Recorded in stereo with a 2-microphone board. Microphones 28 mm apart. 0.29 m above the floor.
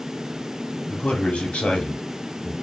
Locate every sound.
0.9 s a man speaking: 50° left (ahead or behind), 1.6 m